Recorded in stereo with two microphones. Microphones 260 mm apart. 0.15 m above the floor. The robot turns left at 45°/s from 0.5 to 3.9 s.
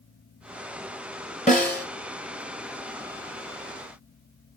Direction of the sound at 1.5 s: 30° left (ahead or behind).